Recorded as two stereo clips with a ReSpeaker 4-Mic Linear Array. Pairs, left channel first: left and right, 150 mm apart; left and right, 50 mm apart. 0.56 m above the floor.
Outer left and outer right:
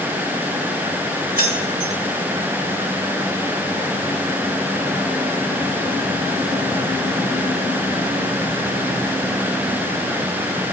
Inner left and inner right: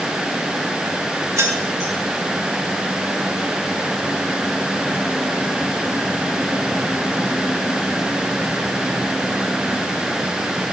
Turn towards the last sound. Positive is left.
turn(degrees=-75)  # may be behind; listen again after turning